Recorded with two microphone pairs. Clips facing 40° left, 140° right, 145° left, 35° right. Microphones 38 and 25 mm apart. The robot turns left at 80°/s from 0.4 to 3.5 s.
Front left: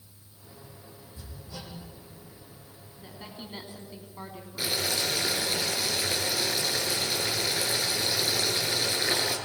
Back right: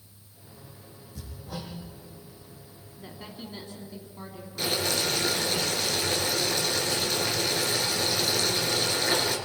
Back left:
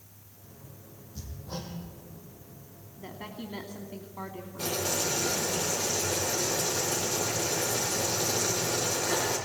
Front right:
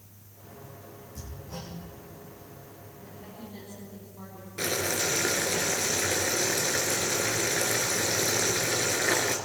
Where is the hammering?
140° right, 6.5 m; by 1.7 s 175° left, 6.5 m.